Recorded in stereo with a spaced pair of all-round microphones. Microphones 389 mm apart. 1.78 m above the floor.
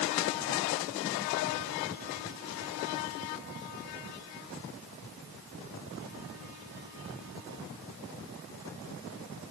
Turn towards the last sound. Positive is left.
No sound to turn to.